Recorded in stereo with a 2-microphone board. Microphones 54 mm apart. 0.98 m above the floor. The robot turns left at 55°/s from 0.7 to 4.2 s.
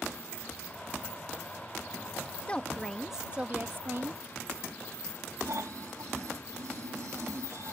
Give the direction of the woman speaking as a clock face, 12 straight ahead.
11 o'clock.